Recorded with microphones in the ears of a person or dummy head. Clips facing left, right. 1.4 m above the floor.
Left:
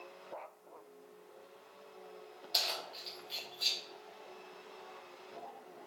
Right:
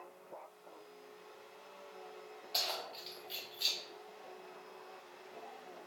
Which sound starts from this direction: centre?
Keys jangling, at 2.5 s.